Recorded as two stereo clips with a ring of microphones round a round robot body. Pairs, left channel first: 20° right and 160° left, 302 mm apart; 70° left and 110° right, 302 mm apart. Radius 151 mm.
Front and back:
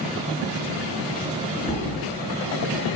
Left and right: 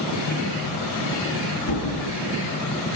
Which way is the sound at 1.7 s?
45° left.